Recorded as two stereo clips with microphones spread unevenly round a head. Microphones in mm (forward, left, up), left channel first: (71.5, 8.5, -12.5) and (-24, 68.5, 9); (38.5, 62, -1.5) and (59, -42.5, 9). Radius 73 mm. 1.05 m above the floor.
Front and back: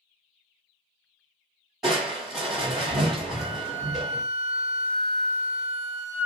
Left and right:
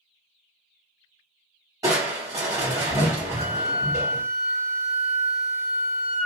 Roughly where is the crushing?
Behind right.